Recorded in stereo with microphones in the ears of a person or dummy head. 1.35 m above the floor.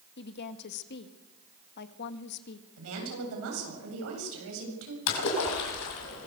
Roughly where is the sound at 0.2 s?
Left.